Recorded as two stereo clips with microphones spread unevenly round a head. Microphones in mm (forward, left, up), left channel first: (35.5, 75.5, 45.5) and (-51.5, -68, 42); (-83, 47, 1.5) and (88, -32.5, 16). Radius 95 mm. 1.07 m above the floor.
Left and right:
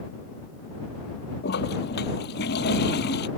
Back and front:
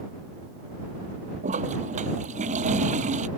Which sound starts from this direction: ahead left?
A toilet flushing, at 1.4 s.